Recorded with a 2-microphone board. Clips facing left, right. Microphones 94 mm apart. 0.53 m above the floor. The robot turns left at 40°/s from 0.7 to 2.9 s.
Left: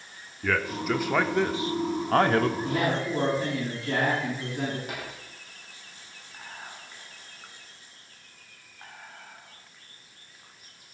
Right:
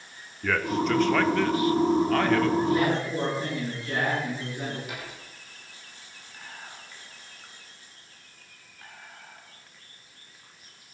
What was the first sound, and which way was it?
A man speaking, centre (ahead or behind).